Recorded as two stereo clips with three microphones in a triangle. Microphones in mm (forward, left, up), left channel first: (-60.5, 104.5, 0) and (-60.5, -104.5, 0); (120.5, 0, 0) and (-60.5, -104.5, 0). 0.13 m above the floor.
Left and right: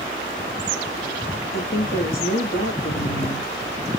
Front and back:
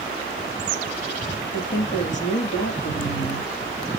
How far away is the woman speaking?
About 4 m.